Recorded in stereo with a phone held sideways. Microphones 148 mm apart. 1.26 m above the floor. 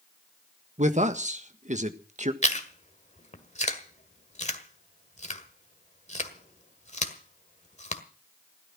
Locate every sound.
0.8 s a man speaking: 50° right (ahead or behind), 1.6 m
2.4 s chewing: 50° left (ahead or behind), 1.7 m